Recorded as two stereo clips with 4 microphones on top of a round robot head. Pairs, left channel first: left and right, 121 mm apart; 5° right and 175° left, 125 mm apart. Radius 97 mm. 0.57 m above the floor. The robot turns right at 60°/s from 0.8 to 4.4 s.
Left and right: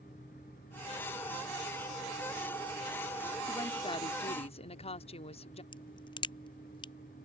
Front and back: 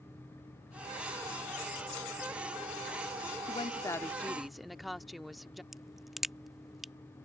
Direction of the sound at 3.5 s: 30° left.